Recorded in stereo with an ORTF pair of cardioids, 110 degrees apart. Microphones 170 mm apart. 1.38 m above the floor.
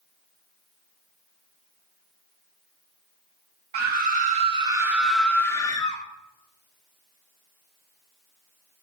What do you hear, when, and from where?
3.7 s a scream: 65° right, 1.5 m; by 6.0 s 25° left, 2.0 m